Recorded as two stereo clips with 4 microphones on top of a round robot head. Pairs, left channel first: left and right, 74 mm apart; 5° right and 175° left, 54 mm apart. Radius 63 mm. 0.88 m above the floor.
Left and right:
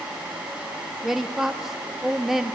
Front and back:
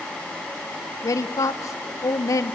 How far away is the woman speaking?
About 1.1 m.